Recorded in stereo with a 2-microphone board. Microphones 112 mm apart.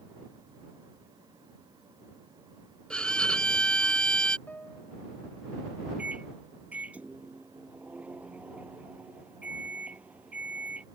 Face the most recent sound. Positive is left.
turn(degrees=-10)  # may be behind; listen again after turning